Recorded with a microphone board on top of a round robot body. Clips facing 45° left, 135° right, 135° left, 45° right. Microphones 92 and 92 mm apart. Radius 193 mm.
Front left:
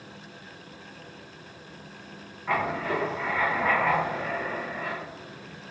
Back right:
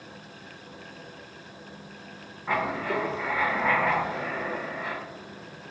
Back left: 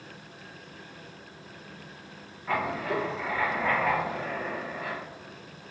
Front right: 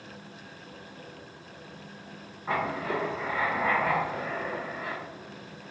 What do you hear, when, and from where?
2.5 s writing: 65° right, 1.4 m